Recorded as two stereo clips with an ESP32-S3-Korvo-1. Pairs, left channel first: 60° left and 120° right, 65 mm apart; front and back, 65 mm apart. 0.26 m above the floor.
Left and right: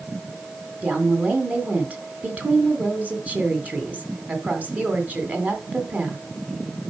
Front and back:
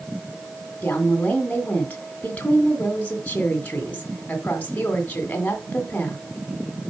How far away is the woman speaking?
About 2.0 m.